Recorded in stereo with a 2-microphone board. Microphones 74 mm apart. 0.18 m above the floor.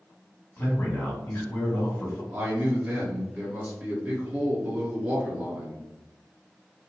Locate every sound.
0.6 s a man speaking: 25° left (ahead or behind), 1.4 m
2.3 s a man speaking: 30° right (ahead or behind), 1.8 m